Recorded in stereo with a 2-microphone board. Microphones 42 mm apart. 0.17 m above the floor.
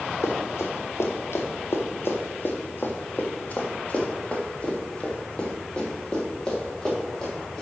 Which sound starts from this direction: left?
Running footsteps, at 0.2 s.